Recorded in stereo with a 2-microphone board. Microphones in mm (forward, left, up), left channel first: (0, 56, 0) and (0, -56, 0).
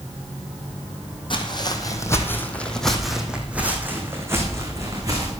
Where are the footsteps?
45° left (ahead or behind), 2 m; by 5.3 s 35° right (ahead or behind), 4 m.